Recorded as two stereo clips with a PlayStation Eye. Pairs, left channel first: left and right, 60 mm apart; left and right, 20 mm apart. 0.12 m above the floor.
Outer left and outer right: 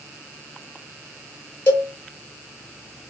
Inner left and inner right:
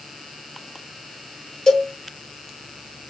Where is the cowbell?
30° left (ahead or behind), 1.4 m.